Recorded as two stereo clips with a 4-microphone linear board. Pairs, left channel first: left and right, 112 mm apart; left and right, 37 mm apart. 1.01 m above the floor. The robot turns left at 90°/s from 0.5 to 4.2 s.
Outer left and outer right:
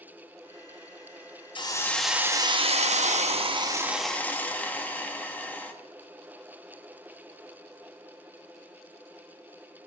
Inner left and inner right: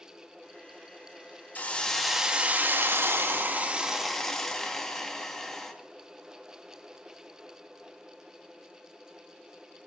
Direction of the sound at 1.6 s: 45° left.